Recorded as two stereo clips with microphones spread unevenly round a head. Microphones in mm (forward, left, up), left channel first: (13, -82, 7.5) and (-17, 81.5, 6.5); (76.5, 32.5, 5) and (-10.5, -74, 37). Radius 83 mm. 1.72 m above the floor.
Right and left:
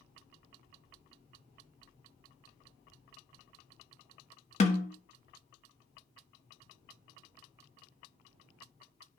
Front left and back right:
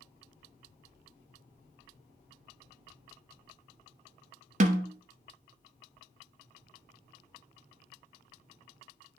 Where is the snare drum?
125° right, 0.9 m.